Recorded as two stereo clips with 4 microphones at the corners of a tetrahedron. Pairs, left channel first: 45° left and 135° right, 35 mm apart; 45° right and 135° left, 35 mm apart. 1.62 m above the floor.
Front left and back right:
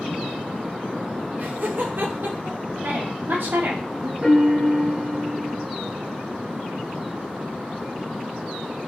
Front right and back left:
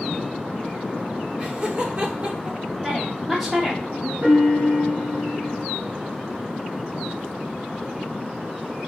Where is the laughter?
175° right, 3 m; by 2.6 s 170° right, 1.9 m.